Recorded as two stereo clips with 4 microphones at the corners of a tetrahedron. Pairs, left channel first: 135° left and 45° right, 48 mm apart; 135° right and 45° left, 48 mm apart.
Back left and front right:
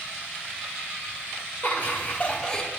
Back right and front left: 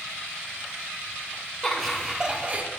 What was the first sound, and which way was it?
Laughter, 145° left.